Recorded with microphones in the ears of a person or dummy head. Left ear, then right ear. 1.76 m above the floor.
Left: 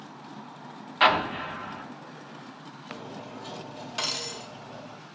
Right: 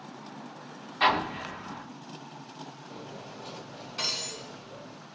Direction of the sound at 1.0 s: 30° left (ahead or behind).